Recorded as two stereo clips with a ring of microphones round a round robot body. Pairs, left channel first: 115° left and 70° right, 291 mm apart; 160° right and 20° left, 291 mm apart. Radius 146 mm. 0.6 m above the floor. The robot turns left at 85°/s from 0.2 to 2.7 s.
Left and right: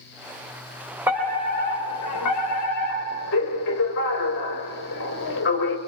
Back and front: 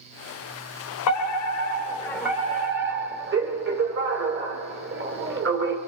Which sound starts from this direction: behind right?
A fire alarm, at 1.1 s.